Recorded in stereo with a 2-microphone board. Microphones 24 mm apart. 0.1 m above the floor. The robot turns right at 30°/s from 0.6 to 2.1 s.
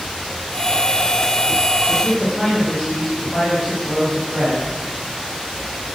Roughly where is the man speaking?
Left.